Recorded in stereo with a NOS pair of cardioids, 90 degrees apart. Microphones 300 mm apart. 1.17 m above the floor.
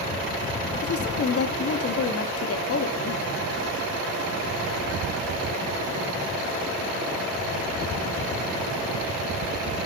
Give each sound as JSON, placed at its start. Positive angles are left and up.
{"t": 0.8, "sound": "a woman speaking", "azimuth_deg": 50, "distance_m": 1.9}